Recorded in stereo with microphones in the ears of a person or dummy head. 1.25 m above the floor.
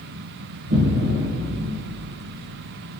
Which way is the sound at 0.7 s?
50° right (ahead or behind).